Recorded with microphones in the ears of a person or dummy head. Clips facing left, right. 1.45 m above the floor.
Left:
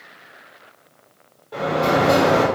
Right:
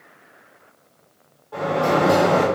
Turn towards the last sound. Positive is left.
turn(degrees=35)  # may be behind; listen again after turning